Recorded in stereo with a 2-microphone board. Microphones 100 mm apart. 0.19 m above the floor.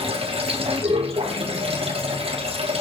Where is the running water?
75° right (ahead or behind), 1.7 m.